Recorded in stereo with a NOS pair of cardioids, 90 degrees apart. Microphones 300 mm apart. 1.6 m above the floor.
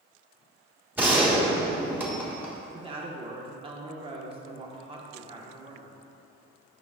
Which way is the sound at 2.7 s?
20° right.